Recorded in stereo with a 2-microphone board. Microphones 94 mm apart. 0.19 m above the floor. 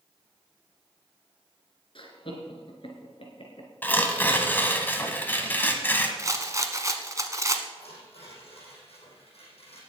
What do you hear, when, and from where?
1.9 s laughter: 60° left (ahead or behind), 2.5 m
3.8 s tearing paper: 20° left (ahead or behind), 1.5 m
6.2 s a rattle: 35° right (ahead or behind), 1.1 m
7.7 s tearing paper: 80° left, 5 m